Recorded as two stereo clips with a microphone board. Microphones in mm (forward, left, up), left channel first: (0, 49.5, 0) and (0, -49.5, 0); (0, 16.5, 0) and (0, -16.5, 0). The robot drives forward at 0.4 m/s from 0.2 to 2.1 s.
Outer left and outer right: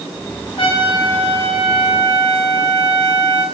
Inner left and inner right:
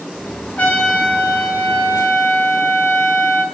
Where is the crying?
No crying in this recording.